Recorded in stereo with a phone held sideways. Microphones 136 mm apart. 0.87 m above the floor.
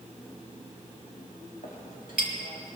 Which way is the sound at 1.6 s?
85° left.